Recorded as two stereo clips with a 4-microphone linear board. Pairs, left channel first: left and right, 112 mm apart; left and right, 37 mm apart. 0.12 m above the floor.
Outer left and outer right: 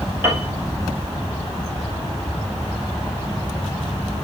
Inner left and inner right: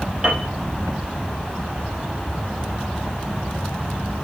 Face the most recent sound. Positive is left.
turn(degrees=-20)  # may be behind; listen again after turning